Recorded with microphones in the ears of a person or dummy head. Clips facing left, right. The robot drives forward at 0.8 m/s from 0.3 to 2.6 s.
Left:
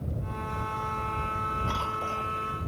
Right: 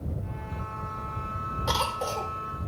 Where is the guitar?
I don't hear a guitar.